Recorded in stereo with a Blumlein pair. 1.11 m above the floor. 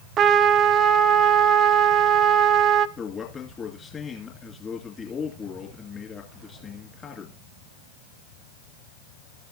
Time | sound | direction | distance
0.2 | a trumpet | 30° right | 0.5 m
3.0 | a man speaking | 20° left | 2.5 m